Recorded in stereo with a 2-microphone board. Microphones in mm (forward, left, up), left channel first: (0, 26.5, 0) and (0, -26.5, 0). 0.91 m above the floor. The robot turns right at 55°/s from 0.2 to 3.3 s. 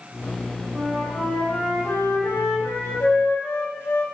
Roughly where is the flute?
Ahead.